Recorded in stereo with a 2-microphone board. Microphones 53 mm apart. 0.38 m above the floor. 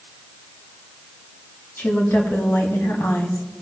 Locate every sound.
1.8 s a woman speaking: 50° left (ahead or behind), 3 m; by 3.4 s 65° left (ahead or behind), 2 m